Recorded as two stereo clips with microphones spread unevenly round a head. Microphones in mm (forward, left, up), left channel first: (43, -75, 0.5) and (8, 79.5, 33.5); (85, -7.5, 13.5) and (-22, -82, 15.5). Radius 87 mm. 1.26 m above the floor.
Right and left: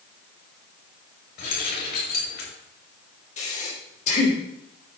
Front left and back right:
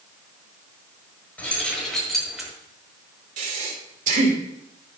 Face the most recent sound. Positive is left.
turn(degrees=-130)